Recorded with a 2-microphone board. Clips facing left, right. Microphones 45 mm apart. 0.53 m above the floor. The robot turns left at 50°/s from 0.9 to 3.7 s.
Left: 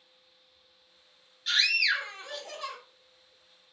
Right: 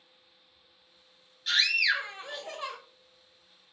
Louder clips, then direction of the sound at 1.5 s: Even; centre (ahead or behind).